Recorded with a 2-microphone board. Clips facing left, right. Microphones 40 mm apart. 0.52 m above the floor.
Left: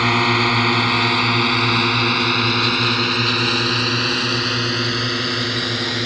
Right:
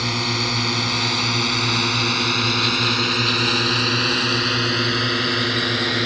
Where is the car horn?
I don't hear a car horn.